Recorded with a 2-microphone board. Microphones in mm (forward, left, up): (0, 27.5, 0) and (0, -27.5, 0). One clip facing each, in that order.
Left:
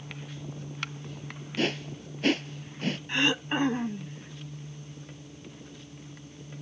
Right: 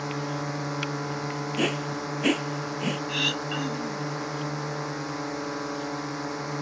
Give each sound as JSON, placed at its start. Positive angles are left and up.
{"t": 0.0, "sound": "a drone", "side_deg": -75}
{"t": 1.6, "sound": "a whoosh", "side_deg": -10}
{"t": 3.1, "sound": "throat clearing", "side_deg": 25}